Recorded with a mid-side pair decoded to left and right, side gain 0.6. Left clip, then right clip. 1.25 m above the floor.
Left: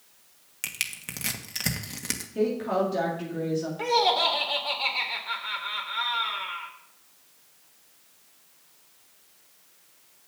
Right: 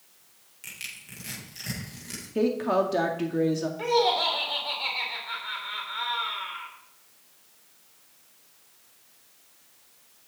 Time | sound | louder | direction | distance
0.6 | crushing | left 7 dB | 65° left | 1.7 m
2.4 | a woman speaking | right 2 dB | 35° right | 1.9 m
3.8 | laughter | left 1 dB | 20° left | 3.5 m